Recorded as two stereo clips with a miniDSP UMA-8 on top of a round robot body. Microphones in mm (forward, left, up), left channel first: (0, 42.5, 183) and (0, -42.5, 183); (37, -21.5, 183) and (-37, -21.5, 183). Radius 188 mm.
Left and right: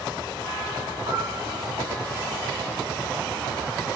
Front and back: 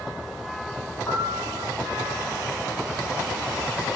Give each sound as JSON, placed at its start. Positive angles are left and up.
{"t": 1.1, "sound": "a piano", "azimuth_deg": -60, "distance_m": 2.0}